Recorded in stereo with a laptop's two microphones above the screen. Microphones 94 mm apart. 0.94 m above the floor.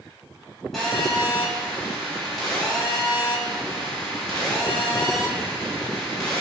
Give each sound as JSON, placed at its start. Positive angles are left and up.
{"t": 0.7, "sound": "a phone buzzing", "side_deg": 0, "distance_m": 1.6}